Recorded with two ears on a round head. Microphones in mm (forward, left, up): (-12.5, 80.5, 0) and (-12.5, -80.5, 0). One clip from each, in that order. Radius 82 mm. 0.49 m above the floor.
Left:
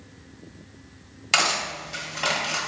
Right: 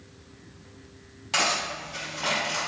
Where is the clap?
I don't hear a clap.